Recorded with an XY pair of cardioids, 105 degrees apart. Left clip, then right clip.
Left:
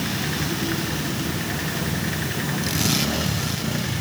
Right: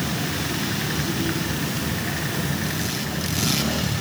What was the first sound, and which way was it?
Only background noise.